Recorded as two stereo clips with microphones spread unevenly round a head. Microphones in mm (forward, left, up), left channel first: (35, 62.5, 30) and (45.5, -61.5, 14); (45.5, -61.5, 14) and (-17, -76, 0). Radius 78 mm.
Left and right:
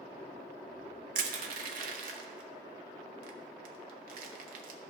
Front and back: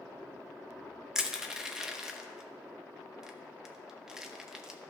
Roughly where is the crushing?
Right.